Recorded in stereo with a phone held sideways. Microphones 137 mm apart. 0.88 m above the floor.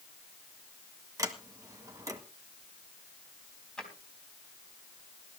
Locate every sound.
1.2 s a sliding door: 25° right (ahead or behind), 1.7 m
3.8 s a drawer: 5° left (ahead or behind), 4 m